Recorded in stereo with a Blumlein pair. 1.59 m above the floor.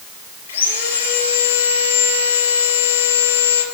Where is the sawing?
60° left, 4 m.